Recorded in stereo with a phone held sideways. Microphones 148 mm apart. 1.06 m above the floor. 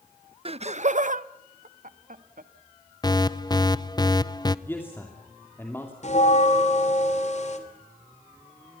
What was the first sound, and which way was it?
Laughter, 40° right (ahead or behind).